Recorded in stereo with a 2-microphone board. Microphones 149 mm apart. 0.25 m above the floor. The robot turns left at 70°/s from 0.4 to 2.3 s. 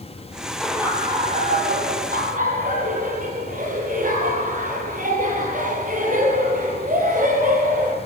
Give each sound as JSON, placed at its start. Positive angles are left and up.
{"t": 0.6, "sound": "laughter", "azimuth_deg": 5, "distance_m": 6.5}